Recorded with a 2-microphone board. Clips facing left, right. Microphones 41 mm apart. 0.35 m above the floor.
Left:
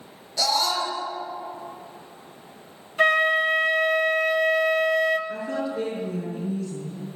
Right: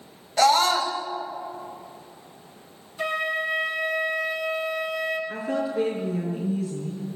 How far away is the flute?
About 1.0 m.